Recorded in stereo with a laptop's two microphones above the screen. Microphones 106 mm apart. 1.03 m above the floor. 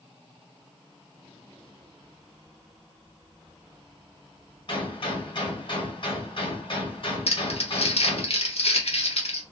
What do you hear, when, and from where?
4.7 s a gunshot: 55° left (ahead or behind), 1.7 m
7.3 s crumpling: 70° left (ahead or behind), 1.0 m